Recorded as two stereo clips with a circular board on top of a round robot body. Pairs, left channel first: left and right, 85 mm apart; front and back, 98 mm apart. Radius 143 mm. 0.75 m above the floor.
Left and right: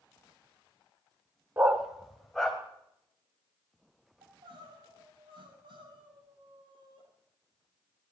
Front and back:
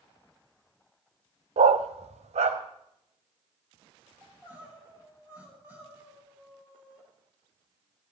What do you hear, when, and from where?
1.6 s a dog barking: 160° right, 0.7 m; by 2.6 s 175° left, 2 m
4.2 s crying: 105° right, 8 m